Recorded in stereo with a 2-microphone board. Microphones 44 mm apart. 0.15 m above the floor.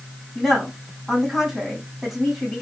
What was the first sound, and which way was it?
A woman speaking, 5° right (ahead or behind).